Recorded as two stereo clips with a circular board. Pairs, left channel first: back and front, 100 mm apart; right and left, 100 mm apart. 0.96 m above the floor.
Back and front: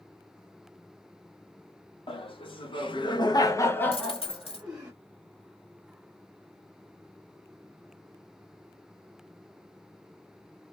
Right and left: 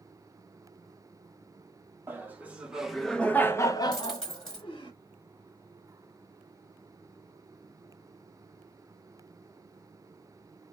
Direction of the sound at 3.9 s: 175° right.